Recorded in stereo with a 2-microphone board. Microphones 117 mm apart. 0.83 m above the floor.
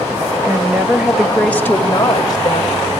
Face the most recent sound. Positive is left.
turn(degrees=45)  # may be behind; listen again after turning